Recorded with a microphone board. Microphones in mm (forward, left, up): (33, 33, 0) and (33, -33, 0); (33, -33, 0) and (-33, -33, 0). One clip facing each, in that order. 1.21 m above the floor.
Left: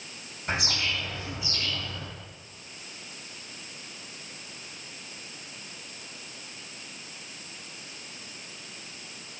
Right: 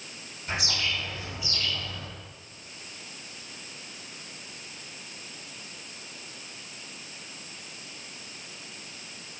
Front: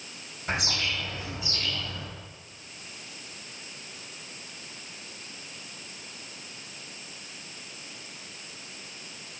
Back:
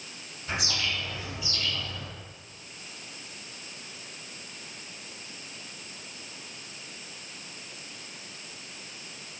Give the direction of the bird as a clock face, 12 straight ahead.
11 o'clock.